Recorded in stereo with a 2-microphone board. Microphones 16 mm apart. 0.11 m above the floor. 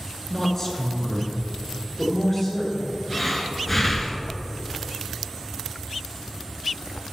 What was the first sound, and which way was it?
A woman speaking, 20° left (ahead or behind).